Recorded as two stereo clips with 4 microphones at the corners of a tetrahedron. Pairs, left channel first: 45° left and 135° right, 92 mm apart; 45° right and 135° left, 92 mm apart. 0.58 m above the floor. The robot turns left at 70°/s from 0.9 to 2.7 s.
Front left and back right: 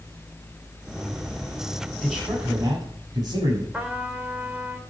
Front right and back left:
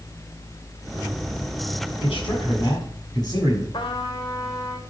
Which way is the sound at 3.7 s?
65° right.